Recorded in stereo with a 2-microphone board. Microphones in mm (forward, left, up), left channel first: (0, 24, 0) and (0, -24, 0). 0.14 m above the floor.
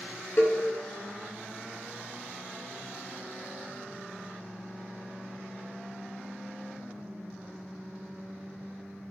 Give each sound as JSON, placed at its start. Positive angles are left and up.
{"t": 0.4, "sound": "a cowbell", "side_deg": 50, "distance_m": 0.6}